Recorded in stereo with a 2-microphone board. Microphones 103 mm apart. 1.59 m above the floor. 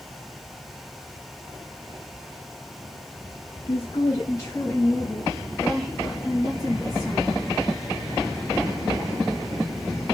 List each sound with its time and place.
3.7 s a woman speaking: 65° left (ahead or behind), 0.6 m; by 7.5 s 10° right (ahead or behind), 2.5 m